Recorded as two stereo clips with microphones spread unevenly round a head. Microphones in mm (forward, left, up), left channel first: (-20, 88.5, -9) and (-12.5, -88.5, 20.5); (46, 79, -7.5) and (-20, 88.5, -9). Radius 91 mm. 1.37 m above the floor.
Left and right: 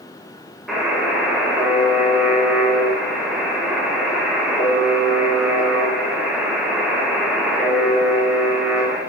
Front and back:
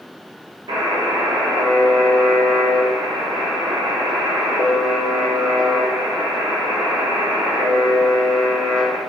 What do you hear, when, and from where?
0.7 s a buzzer: straight behind, 1.3 m